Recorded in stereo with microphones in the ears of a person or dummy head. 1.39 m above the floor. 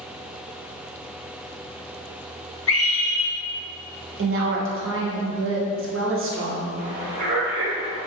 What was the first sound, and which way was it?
A scream, 75° left (ahead or behind).